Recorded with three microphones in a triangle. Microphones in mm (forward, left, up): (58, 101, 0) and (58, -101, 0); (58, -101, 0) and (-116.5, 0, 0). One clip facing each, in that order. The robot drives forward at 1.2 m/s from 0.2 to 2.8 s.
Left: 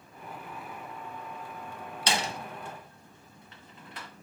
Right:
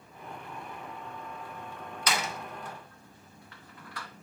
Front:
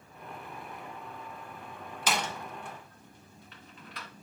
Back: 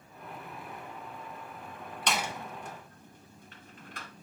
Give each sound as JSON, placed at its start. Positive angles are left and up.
{"t": 2.1, "sound": "a door slam", "azimuth_deg": 55, "distance_m": 0.8}